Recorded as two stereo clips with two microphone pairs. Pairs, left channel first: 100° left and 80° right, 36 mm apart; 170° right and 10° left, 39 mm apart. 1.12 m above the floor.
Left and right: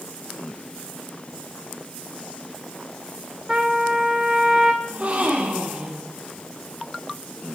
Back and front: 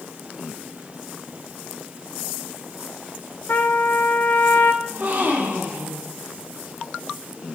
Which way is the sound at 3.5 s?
140° right.